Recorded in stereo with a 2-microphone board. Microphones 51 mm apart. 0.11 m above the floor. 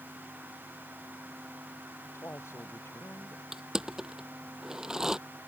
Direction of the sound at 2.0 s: 60° left (ahead or behind).